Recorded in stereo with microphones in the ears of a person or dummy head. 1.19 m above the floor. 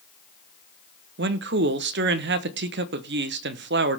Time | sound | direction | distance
1.2 | a man speaking | 50° right (ahead or behind) | 1.0 m